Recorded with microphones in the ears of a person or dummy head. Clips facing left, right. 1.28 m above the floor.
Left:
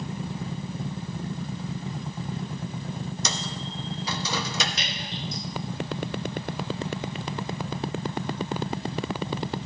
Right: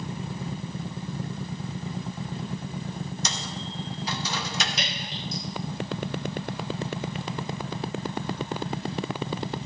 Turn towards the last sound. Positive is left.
turn(degrees=-80)